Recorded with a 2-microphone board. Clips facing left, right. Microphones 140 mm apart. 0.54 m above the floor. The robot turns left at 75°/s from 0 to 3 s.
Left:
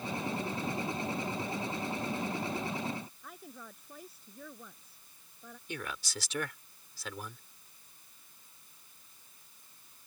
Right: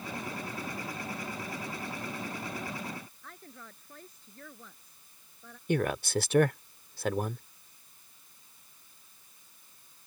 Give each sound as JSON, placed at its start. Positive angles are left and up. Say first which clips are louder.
{"t": 3.2, "sound": "a woman speaking", "louder": "left 1 dB", "side_deg": 10}
{"t": 5.7, "sound": "a man speaking", "louder": "right 13 dB", "side_deg": -55}